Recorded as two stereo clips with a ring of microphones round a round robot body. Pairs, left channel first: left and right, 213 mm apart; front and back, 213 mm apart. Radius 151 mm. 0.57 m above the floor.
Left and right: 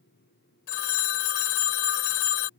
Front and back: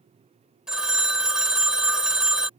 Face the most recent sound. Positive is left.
turn(degrees=95)